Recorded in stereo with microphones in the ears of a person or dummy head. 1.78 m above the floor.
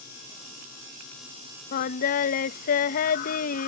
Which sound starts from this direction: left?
Singing, at 1.7 s.